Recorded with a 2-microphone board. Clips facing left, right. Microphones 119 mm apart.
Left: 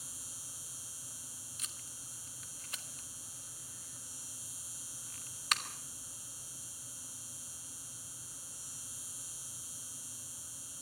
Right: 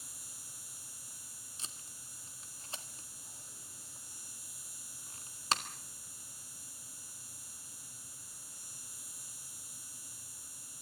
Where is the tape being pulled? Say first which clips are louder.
Right 4 dB; 30° right (ahead or behind), 1.6 m.